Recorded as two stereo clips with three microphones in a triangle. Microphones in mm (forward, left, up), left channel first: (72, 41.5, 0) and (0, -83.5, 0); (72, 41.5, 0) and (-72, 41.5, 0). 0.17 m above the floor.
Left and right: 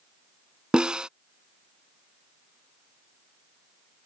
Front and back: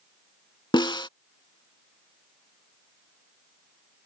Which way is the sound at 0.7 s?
40° right.